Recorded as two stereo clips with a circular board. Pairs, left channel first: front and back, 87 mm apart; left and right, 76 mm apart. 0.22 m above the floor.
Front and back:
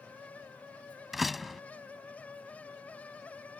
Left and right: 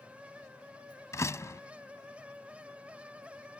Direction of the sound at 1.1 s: 90° left.